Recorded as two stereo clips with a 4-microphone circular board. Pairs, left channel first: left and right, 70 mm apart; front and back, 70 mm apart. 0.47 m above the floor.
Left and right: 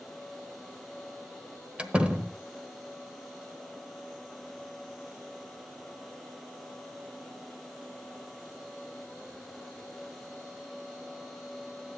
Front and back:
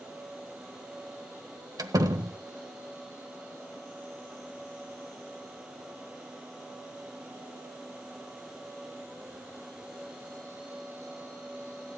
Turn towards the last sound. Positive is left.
turn(degrees=-160)